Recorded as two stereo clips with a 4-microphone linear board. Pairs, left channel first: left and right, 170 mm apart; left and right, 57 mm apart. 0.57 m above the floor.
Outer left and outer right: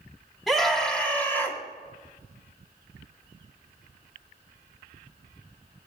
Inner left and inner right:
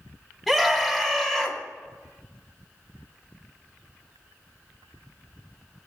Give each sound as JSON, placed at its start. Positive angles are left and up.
{"t": 0.5, "sound": "a scream", "side_deg": 0, "distance_m": 4.0}